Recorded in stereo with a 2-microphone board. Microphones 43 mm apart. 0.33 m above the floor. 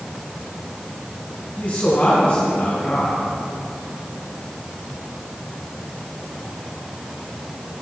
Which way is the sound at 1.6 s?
40° left (ahead or behind).